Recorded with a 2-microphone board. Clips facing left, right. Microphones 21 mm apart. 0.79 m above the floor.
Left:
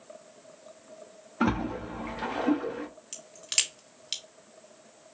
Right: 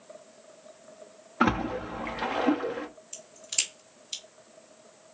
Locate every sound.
1.4 s a splash: 20° right (ahead or behind), 0.6 m
3.1 s a crack: 70° left (ahead or behind), 2 m